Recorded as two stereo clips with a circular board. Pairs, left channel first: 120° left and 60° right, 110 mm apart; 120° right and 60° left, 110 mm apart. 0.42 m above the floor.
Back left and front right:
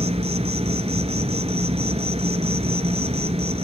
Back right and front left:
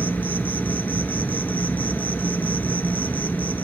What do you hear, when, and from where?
0.0 s an insect: 45° right, 0.9 m